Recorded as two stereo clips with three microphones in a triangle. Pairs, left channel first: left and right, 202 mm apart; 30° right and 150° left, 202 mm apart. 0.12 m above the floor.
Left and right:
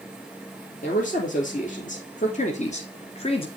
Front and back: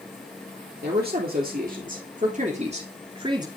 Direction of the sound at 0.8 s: 125° left.